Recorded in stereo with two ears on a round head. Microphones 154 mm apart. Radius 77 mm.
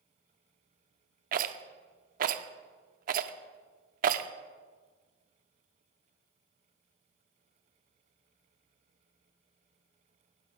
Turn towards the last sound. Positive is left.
turn(degrees=-50)  # may be behind; listen again after turning